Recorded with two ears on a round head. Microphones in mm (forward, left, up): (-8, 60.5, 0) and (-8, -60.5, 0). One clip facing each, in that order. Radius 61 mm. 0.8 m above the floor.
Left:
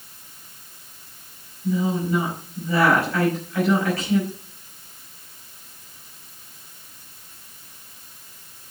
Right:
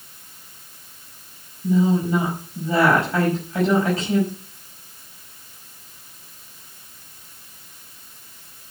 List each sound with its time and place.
1.6 s a woman speaking: 20° right (ahead or behind), 5 m